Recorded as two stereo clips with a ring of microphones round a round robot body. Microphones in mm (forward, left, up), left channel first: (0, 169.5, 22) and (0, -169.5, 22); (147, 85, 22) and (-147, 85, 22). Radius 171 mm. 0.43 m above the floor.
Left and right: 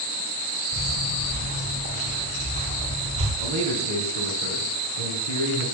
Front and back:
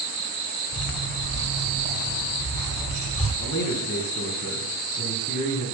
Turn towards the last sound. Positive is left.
turn(degrees=-80)